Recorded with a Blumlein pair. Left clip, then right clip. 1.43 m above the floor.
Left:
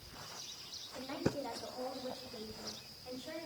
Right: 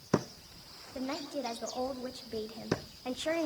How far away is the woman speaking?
About 3.5 m.